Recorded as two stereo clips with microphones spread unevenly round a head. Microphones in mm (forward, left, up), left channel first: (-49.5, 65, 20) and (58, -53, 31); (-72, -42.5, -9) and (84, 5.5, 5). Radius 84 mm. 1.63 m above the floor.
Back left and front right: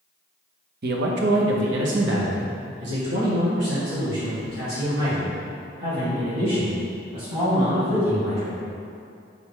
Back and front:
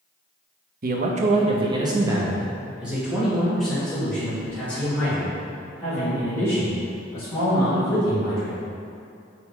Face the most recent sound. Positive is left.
turn(degrees=-90)